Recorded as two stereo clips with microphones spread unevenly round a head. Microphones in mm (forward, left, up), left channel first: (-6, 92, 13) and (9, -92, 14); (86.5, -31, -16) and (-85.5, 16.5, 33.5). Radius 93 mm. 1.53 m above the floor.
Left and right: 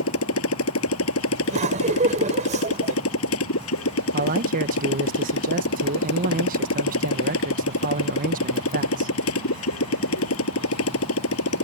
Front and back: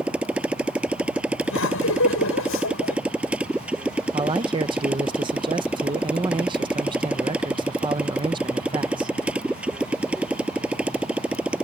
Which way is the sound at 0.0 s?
80° left.